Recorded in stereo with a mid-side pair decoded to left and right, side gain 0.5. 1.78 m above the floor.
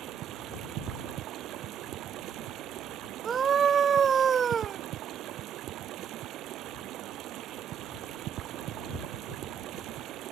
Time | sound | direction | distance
0.0 | running water | 70° right | ?
3.2 | a scream | 40° right | ?